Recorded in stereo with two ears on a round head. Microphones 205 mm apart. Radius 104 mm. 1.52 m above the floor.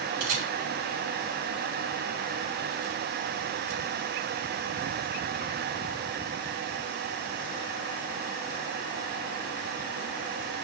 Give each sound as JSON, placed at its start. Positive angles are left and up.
{"t": 0.2, "sound": "a camera shutter", "side_deg": -40, "distance_m": 5.0}